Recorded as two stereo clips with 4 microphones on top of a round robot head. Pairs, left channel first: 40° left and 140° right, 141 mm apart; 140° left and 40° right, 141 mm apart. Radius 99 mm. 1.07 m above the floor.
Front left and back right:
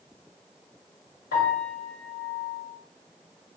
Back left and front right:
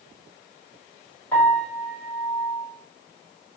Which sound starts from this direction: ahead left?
A piano, at 1.3 s.